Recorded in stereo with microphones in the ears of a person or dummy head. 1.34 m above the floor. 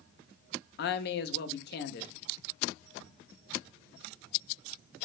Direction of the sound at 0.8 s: 50° left (ahead or behind).